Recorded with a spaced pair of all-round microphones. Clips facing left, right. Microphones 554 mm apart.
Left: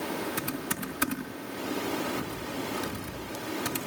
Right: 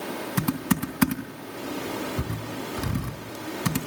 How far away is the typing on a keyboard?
About 3 m.